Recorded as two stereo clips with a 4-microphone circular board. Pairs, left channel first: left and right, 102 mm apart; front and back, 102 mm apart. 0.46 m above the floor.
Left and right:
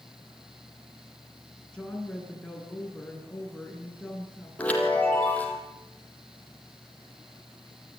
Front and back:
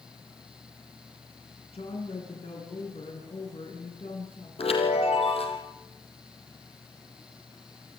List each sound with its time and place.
1.7 s a woman speaking: 10° left, 6.5 m
4.6 s a chime: 15° left, 4 m